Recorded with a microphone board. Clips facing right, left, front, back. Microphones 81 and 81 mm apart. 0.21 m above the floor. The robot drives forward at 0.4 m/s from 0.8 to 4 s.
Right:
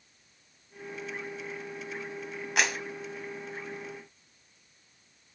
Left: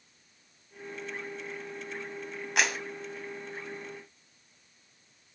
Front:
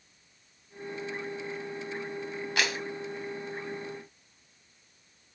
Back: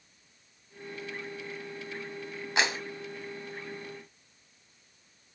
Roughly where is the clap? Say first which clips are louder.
Even, back 2 dB; behind.